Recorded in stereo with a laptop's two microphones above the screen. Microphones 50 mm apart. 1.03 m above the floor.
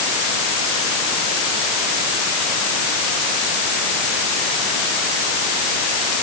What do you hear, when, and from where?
Only background noise.